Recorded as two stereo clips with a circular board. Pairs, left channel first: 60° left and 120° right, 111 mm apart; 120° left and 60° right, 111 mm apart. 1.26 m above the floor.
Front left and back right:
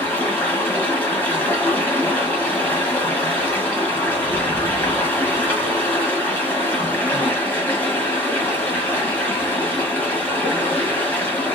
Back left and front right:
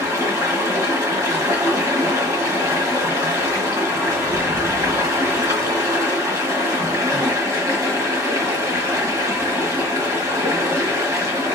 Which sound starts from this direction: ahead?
Running water, at 0.0 s.